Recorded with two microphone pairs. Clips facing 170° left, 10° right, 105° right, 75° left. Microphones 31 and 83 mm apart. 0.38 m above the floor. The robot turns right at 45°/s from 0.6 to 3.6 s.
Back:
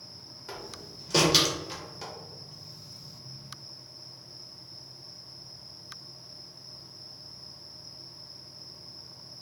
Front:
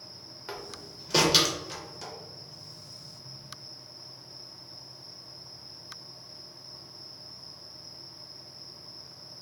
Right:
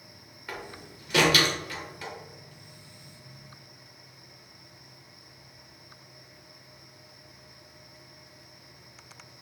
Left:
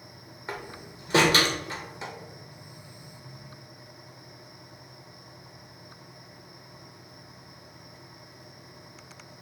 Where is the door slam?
50° left, 0.6 m; by 2.1 s 120° left, 0.6 m.